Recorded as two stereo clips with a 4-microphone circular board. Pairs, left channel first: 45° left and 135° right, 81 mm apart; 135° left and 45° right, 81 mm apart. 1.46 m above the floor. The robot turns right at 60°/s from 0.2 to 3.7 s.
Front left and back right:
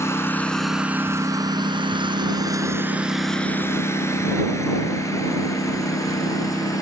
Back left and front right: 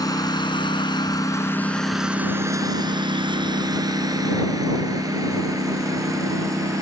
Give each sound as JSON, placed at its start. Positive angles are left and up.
{"t": 0.0, "sound": "a lawn mower", "azimuth_deg": 100}